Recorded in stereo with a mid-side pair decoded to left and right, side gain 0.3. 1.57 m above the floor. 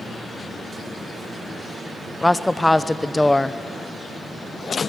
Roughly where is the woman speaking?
Ahead.